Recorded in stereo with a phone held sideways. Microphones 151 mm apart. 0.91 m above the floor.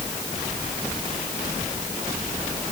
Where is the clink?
No clink in this recording.